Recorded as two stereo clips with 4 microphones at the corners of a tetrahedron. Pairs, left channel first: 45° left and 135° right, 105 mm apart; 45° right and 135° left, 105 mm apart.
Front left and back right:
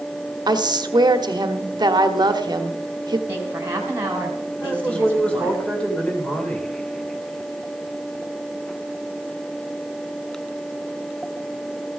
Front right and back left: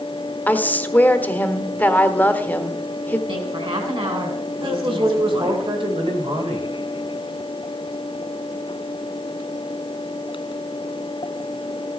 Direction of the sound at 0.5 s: 110° right.